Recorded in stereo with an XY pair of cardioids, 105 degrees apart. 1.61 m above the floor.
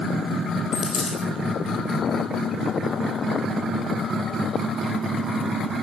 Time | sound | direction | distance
0.7 | a dropped coin | 55° left | 4.5 m